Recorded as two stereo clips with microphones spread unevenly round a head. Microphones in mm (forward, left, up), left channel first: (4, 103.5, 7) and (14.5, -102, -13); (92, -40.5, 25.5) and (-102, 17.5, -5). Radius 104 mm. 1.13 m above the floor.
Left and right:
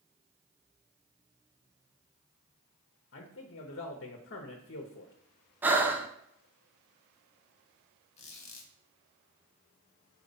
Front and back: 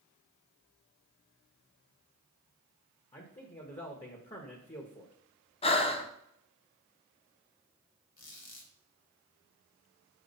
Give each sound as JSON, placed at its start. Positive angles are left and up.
{"t": 3.1, "sound": "a man speaking", "azimuth_deg": 50, "distance_m": 1.0}
{"t": 5.6, "sound": "breathing", "azimuth_deg": -40, "distance_m": 0.6}
{"t": 8.2, "sound": "a squeak", "azimuth_deg": 35, "distance_m": 1.5}